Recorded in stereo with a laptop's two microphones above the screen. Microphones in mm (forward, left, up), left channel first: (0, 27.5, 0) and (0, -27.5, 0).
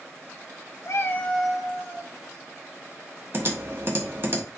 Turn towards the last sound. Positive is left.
turn(degrees=-45)  # may be behind; listen again after turning